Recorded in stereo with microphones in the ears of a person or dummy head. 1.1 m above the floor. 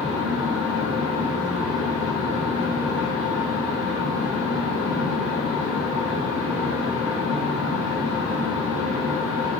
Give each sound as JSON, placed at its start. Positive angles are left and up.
{"t": 0.0, "sound": "a fan", "side_deg": -5, "distance_m": 0.9}